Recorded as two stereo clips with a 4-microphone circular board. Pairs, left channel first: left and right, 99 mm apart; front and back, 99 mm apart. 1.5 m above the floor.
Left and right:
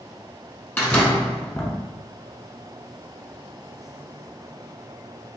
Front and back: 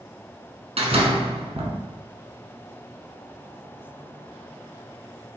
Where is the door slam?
160° left, 1.1 m.